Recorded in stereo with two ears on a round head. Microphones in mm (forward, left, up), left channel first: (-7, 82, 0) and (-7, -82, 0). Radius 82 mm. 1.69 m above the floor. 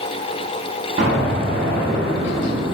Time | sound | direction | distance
1.0 | an explosion | 45° right (ahead or behind) | 5 m